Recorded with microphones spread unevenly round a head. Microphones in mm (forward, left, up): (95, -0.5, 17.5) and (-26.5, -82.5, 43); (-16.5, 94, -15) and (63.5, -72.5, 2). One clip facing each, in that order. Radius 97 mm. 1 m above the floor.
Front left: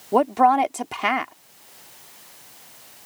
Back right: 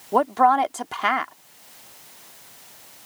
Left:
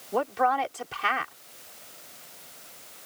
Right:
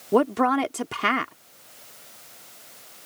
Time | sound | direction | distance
0.1 | a woman speaking | 40° right | ?